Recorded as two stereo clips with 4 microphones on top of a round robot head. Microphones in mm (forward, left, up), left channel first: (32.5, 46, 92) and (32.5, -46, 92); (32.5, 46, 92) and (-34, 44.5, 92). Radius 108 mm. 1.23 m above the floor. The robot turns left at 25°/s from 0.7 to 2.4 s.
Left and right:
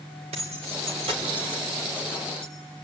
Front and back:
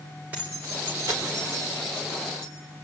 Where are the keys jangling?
110° right, 3.5 m; by 2.5 s 150° right, 3.5 m.